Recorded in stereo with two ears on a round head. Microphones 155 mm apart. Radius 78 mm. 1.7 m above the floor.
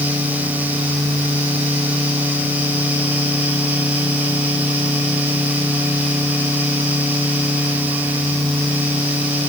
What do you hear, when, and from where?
Only background noise.